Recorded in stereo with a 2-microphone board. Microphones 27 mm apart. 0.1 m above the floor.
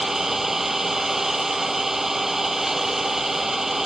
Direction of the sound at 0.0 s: 15° right (ahead or behind).